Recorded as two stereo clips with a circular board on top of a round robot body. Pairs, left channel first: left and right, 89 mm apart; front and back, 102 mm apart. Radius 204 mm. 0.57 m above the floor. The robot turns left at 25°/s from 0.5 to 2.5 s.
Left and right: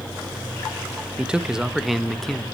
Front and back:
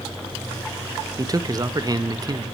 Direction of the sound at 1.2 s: 160° right.